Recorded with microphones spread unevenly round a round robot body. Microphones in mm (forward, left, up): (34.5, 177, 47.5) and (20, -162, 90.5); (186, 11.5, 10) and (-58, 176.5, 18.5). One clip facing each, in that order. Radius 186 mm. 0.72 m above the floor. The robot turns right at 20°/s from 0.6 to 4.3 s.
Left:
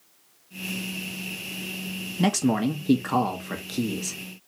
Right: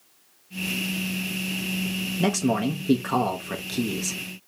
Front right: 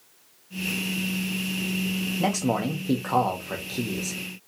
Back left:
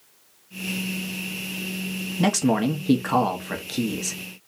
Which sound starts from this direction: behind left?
A man speaking, at 2.2 s.